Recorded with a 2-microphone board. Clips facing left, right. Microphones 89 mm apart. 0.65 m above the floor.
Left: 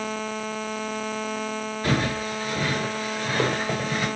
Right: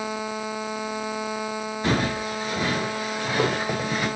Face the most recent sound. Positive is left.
turn(degrees=-10)  # may be behind; listen again after turning